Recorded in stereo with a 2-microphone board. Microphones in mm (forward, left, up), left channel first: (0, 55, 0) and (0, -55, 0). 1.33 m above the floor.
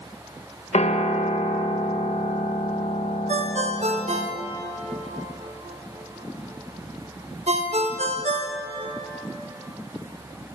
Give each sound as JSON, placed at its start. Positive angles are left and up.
{"t": 0.7, "sound": "a piano", "side_deg": 65, "distance_m": 0.9}
{"t": 3.3, "sound": "a ringtone", "side_deg": -75, "distance_m": 1.0}